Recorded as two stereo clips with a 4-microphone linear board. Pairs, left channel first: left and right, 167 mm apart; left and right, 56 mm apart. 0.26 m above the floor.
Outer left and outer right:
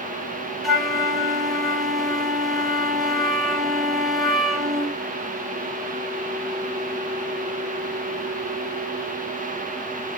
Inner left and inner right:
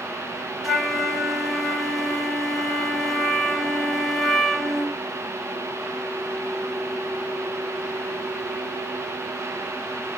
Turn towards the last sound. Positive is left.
turn(degrees=0)  # may be behind; listen again after turning